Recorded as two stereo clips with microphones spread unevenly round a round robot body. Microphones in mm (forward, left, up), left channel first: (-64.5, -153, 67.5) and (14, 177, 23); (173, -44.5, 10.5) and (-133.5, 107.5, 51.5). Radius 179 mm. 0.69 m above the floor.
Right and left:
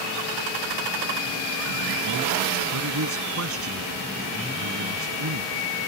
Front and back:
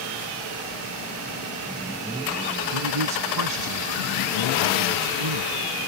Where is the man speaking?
125° left.